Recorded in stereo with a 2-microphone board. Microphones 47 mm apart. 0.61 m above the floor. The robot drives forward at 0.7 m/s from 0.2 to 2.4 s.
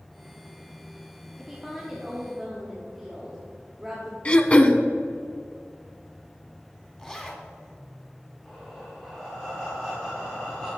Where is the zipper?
15° left (ahead or behind), 1.1 m.